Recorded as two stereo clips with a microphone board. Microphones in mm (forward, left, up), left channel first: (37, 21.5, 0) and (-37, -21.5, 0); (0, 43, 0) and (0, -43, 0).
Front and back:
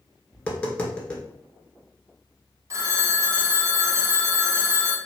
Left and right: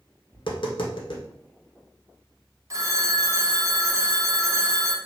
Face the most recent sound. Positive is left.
turn(degrees=-120)